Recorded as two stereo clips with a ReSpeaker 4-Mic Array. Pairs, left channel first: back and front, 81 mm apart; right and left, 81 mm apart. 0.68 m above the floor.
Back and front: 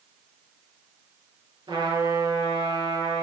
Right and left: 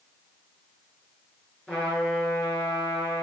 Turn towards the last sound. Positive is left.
turn(degrees=-10)